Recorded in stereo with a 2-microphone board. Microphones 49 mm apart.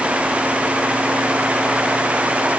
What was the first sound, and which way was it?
Only background noise.